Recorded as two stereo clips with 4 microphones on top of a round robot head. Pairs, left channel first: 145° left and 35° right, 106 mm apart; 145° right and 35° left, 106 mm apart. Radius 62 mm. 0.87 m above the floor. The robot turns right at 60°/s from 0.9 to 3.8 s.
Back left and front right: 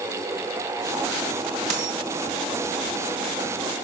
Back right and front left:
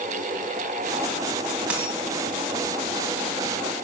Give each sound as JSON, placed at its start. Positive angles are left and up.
{"t": 1.7, "sound": "a dropped coin", "azimuth_deg": -45, "distance_m": 2.5}